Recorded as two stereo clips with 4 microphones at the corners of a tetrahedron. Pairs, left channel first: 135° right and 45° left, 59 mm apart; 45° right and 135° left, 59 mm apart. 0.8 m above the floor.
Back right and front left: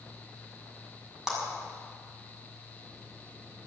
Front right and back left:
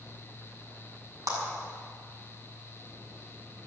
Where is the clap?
125° left, 6.5 m.